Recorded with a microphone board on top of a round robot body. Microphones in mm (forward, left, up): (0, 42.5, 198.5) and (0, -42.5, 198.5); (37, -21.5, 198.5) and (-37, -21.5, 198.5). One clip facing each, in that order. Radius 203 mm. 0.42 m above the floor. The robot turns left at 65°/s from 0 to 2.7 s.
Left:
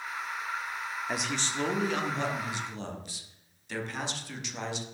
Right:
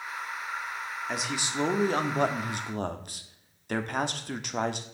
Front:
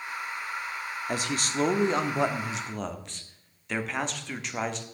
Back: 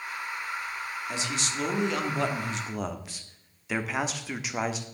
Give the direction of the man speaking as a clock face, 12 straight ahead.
12 o'clock.